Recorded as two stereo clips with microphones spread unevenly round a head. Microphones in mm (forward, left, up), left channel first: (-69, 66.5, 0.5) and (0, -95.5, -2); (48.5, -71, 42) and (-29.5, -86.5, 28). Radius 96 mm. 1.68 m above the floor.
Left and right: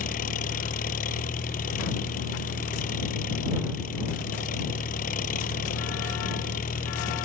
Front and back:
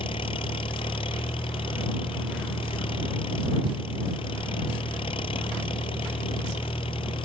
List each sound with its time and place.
0.0 s an engine running: 60° left